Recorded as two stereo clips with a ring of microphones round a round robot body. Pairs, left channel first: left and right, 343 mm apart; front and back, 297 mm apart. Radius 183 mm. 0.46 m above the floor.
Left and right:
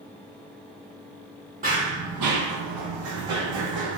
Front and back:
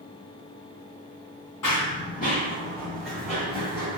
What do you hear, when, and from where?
1.6 s running footsteps: 30° right, 0.6 m; by 4.0 s 100° right, 1.6 m